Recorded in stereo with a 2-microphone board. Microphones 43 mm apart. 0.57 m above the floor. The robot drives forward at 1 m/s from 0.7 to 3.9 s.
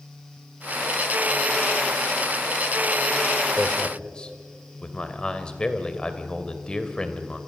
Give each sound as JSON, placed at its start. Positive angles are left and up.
{"t": 3.6, "sound": "a man speaking", "side_deg": 25, "distance_m": 1.8}